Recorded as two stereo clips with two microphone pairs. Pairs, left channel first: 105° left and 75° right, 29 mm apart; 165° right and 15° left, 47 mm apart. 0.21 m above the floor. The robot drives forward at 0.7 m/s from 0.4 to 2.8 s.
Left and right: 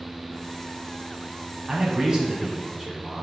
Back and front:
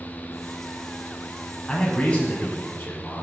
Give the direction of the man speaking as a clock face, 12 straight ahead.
3 o'clock.